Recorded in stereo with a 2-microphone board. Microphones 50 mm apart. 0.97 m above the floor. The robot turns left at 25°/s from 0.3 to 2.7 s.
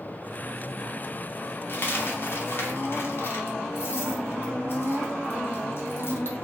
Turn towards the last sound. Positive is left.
turn(degrees=50)  # may be behind; listen again after turning